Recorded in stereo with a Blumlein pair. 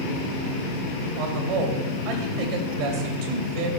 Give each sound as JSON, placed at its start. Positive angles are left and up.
{"t": 1.2, "sound": "a man speaking", "azimuth_deg": -45, "distance_m": 1.9}